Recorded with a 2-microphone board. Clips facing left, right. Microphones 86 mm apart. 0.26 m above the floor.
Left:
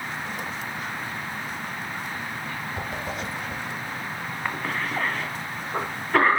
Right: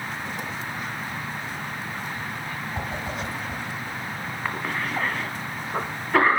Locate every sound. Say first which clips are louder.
2.8 s a whoosh: right 1 dB; 20° right (ahead or behind), 5 m
4.5 s a cough: even; centre (ahead or behind), 1.6 m